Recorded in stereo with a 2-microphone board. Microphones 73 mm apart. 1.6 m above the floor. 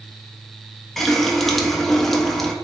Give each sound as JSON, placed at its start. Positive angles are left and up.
{"t": 1.0, "sound": "a running tap", "side_deg": 5, "distance_m": 0.6}